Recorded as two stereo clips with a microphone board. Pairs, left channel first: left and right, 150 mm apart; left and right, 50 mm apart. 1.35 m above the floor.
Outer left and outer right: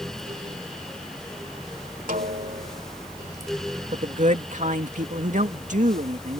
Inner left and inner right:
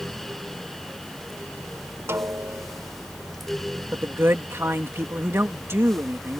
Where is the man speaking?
55° right (ahead or behind).